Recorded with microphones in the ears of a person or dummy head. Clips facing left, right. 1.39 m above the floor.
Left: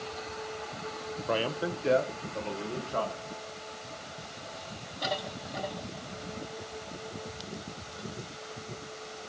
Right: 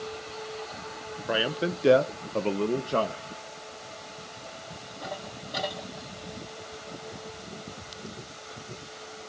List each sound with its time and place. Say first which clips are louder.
1.3 s a man speaking: right 2 dB; 5° right (ahead or behind), 0.8 m; by 3.2 s 60° right (ahead or behind), 1.7 m